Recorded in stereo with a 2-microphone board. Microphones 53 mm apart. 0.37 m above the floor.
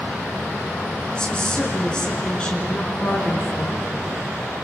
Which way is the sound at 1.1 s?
15° left (ahead or behind).